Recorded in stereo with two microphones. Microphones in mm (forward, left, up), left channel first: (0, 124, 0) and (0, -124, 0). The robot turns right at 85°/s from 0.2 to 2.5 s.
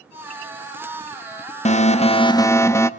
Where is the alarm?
25° left (ahead or behind), 0.6 m; by 2.9 s 10° left (ahead or behind), 0.6 m.